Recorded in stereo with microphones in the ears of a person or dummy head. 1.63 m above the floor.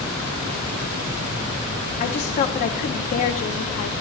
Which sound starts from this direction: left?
A woman speaking, at 2.0 s.